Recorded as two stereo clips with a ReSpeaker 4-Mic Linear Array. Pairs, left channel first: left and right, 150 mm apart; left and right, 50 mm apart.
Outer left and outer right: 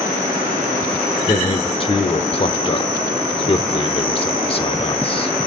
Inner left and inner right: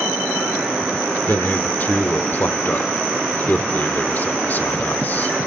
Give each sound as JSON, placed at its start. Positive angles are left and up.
{"t": 1.3, "sound": "a man speaking", "side_deg": 40, "distance_m": 1.0}